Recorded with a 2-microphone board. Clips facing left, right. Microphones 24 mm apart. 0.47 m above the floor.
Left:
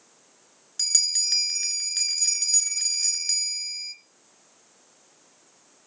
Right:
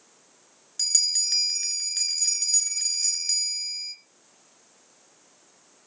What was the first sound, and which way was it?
A bell, 10° left (ahead or behind).